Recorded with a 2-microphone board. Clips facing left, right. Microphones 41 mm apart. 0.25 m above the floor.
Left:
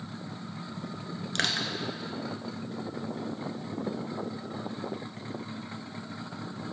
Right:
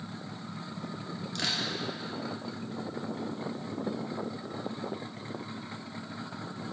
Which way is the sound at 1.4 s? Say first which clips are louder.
Left 4 dB; 65° left (ahead or behind).